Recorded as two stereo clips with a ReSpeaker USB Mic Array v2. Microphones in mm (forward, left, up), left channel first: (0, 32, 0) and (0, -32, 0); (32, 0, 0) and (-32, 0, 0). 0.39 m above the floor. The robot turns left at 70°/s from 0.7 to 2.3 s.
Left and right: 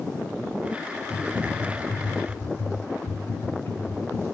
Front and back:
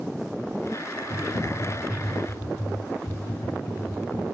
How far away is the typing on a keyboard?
About 2.5 m.